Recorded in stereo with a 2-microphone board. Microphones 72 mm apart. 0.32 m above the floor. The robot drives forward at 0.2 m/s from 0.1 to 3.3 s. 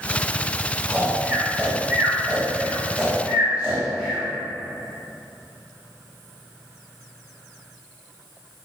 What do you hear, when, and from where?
0.9 s snoring: 20° right (ahead or behind), 0.5 m; by 4.2 s 15° right (ahead or behind), 0.8 m